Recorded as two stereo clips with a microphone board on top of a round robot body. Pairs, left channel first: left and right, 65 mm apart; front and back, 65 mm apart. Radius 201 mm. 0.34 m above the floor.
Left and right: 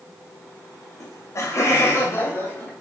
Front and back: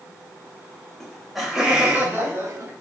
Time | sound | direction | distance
1.0 | laughter | 80° left | 1.5 m